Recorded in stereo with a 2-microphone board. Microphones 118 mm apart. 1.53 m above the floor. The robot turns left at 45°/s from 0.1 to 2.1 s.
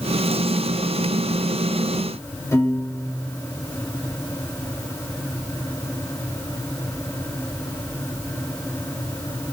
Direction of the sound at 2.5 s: 25° left (ahead or behind).